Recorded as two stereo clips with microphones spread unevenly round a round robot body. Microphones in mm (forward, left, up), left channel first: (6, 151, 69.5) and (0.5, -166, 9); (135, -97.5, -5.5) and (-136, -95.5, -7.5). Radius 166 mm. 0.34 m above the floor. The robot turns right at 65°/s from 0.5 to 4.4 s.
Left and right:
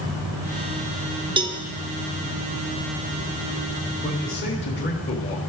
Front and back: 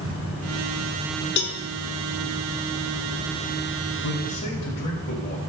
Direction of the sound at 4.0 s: 10° left.